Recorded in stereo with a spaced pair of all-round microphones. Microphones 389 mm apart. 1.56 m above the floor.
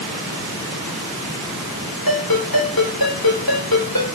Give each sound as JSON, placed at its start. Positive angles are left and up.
{"t": 2.1, "sound": "a ringtone", "side_deg": 65, "distance_m": 3.5}